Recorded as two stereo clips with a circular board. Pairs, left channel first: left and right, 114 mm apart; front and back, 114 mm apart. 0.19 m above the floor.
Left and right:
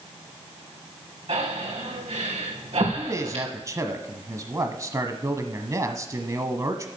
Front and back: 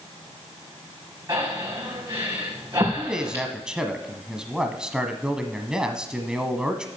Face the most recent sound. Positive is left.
turn(degrees=-105)